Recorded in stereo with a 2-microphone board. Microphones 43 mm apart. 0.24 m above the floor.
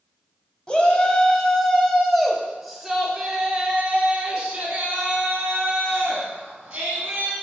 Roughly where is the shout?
Left.